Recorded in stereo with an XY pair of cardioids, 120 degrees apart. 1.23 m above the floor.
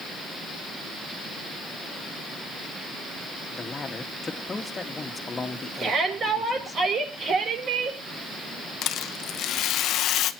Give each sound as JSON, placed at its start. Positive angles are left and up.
{"t": 3.5, "sound": "a man speaking", "azimuth_deg": 25, "distance_m": 1.9}
{"t": 5.8, "sound": "a shout", "azimuth_deg": -50, "distance_m": 6.5}
{"t": 8.8, "sound": "a rattle", "azimuth_deg": 65, "distance_m": 0.9}